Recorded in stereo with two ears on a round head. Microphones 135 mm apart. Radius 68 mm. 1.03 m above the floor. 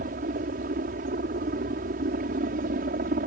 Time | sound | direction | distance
0.0 | a helicopter | 60° right (ahead or behind) | ?